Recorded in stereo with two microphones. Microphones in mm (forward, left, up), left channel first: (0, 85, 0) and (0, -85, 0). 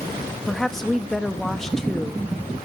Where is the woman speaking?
Centre (ahead or behind), 1.4 m.